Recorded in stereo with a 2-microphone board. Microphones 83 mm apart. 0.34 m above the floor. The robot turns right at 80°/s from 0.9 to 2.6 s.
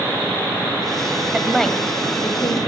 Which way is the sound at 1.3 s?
15° right (ahead or behind).